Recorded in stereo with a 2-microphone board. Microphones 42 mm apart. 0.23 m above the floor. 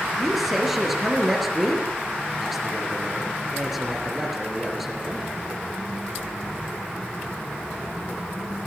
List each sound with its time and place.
0.2 s a man speaking: 5° right (ahead or behind), 4.5 m